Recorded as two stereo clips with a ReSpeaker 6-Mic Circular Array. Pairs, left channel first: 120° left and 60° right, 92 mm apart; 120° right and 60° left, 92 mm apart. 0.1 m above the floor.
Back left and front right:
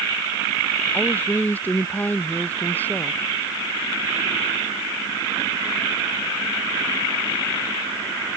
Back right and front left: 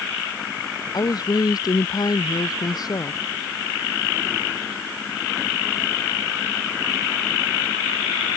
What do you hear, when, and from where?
0.9 s a woman speaking: 165° right